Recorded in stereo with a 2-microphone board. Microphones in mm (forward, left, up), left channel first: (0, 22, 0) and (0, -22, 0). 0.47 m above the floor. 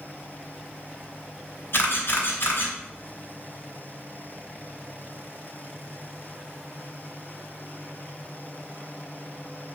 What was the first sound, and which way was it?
A camera shutter, 60° left (ahead or behind).